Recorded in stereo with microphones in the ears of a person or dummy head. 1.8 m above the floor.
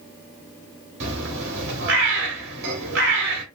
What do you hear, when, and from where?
1.0 s a bird: 70° right (ahead or behind), 1.1 m